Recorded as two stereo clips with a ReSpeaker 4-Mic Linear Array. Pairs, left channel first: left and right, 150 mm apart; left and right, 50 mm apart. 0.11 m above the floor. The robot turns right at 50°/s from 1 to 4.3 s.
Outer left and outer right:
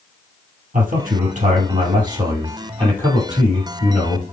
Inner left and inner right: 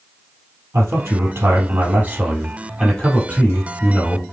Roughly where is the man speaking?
Right.